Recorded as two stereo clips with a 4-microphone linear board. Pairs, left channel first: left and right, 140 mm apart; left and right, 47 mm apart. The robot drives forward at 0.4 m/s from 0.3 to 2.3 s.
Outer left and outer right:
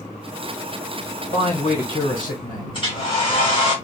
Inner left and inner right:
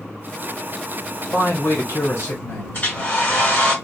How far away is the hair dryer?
About 1.3 m.